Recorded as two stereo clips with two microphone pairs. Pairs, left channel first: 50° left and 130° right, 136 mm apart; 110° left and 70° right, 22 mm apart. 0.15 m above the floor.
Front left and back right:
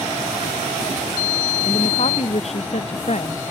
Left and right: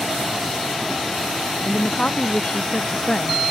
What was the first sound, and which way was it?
A woman speaking, 90° left.